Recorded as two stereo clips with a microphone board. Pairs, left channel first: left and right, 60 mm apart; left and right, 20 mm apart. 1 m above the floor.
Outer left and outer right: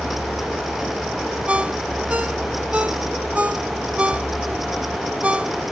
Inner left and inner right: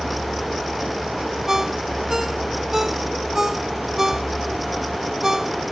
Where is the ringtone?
25° right (ahead or behind).